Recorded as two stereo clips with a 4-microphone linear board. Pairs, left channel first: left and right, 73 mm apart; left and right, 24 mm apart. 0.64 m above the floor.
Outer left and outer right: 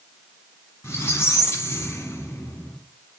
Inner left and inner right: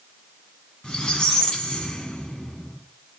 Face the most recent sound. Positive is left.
turn(degrees=40)  # may be behind; listen again after turning